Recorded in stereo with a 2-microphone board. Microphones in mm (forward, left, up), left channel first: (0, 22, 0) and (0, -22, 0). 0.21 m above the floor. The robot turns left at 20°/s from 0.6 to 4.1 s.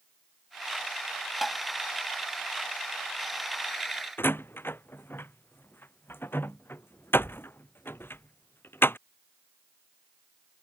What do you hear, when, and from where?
1.4 s tapping: centre (ahead or behind); by 1.6 s 5° left (ahead or behind)
4.2 s a door slam: 65° left (ahead or behind)